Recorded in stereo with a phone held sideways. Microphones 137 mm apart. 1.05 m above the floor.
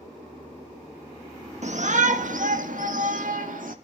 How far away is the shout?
About 1.6 m.